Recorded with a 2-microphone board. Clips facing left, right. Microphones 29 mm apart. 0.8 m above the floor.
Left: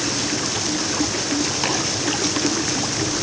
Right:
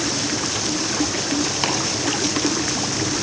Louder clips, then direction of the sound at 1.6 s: Right 1 dB; 15° right (ahead or behind).